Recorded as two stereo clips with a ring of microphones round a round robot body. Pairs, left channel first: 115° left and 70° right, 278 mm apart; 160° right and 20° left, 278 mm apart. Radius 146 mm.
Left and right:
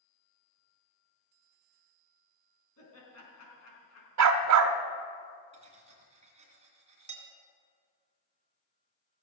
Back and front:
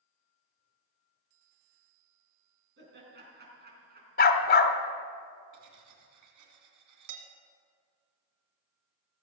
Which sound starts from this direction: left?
Laughter, at 2.8 s.